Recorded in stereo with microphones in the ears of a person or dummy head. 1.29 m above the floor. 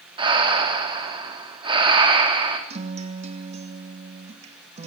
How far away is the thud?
I don't hear a thud.